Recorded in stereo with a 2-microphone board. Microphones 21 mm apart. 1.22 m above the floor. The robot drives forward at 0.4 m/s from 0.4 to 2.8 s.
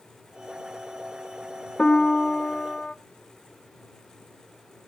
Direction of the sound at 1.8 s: 45° left (ahead or behind).